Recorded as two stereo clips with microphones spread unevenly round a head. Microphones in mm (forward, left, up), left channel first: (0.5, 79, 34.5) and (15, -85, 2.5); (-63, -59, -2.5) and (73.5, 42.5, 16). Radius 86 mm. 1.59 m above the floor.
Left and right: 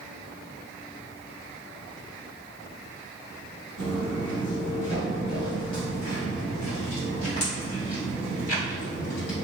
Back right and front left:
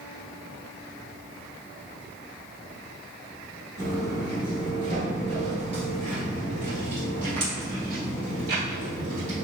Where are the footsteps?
35° left, 1.6 m; by 9.4 s 70° left, 4 m.